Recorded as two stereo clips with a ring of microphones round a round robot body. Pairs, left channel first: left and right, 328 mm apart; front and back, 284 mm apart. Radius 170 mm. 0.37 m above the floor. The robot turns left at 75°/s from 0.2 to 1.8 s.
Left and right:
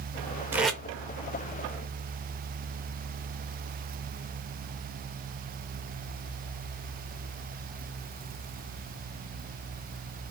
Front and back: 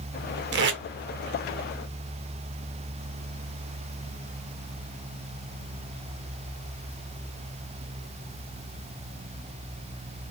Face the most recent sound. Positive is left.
turn(degrees=95)